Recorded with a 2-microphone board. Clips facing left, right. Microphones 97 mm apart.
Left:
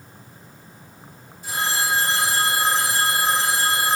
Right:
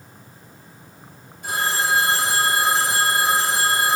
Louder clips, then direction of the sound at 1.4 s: Right 2 dB; 75° right (ahead or behind).